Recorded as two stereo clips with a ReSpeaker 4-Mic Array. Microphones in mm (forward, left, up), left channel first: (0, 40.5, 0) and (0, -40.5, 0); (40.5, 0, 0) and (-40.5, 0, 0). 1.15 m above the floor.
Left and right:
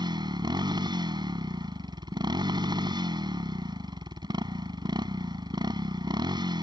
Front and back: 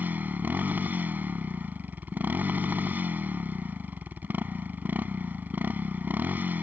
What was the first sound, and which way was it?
A motorcycle, 115° right.